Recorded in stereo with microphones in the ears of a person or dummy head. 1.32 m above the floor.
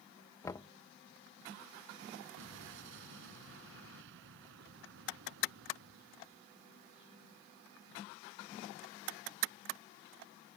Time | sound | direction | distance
0.4 | knocking | 20° left (ahead or behind) | ?
2.4 | an explosion | 70° right (ahead or behind) | ?